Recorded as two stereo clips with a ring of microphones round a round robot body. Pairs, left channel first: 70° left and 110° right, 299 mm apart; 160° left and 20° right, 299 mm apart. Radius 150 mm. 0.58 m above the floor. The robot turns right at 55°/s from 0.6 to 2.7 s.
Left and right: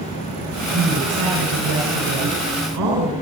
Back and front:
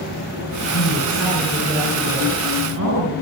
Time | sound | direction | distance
0.7 | a woman speaking | straight behind | 5.5 m